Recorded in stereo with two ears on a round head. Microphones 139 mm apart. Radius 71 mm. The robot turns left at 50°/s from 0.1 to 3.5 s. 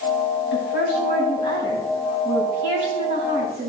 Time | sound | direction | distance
0.5 | a woman speaking | 90° left | 3.5 m